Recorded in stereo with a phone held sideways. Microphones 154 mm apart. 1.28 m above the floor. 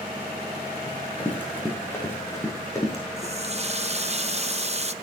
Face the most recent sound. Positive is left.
turn(degrees=-45)  # may be behind; listen again after turning